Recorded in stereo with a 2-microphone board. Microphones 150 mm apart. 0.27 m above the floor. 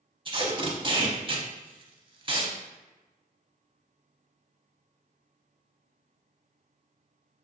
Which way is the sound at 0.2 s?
35° right (ahead or behind).